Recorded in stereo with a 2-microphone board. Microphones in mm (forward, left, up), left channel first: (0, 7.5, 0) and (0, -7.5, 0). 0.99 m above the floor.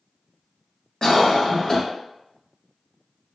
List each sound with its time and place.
1.0 s a cough: 50° left (ahead or behind), 1.2 m